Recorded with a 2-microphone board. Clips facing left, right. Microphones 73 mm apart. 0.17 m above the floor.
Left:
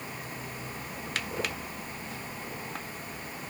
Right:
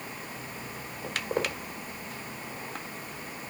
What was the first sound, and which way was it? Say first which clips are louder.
Footsteps: right 4 dB; 65° right (ahead or behind).